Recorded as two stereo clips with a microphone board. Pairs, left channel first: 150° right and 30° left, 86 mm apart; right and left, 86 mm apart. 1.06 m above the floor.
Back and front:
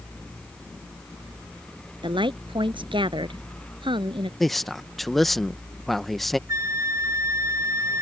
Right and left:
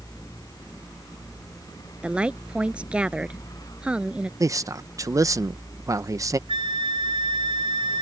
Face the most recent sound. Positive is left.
turn(degrees=85)